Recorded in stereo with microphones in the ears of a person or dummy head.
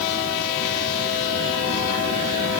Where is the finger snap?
No finger snap in this recording.